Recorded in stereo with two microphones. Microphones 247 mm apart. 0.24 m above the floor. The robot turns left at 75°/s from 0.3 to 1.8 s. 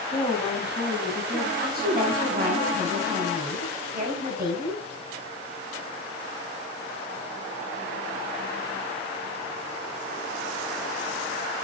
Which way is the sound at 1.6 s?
35° right (ahead or behind).